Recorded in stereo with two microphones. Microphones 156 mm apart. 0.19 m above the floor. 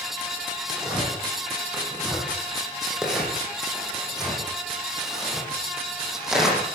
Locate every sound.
0.7 s tearing paper: 5° right (ahead or behind), 9.5 m